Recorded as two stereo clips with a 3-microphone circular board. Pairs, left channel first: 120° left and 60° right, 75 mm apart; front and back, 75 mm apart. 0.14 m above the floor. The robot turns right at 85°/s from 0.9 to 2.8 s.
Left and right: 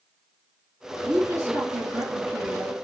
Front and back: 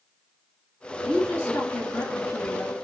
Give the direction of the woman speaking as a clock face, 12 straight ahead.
3 o'clock.